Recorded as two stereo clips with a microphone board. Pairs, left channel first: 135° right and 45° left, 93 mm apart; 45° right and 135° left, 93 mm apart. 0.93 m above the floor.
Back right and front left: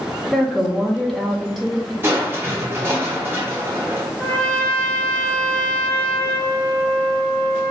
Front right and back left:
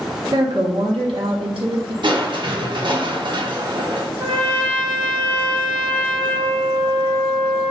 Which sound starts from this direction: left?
Crushing, at 2.0 s.